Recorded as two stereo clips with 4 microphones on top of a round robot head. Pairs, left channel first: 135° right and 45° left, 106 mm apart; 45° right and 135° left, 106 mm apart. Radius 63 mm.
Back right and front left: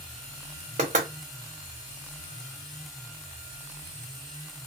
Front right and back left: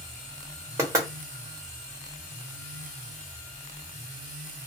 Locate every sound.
0.8 s knocking: 70° left, 1.2 m